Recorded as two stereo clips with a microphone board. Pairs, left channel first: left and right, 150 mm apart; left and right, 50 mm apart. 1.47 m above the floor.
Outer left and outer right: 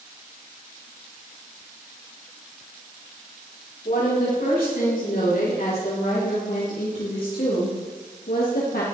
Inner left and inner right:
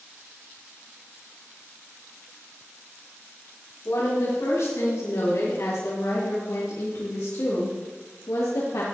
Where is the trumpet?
I don't hear a trumpet.